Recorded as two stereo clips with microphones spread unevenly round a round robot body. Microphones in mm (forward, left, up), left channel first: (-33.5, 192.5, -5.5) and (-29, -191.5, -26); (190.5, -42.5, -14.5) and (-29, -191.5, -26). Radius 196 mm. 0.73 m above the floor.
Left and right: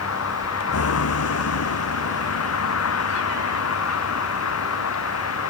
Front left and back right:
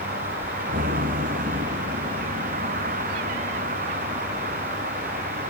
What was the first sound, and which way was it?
A vehicle, 145° left.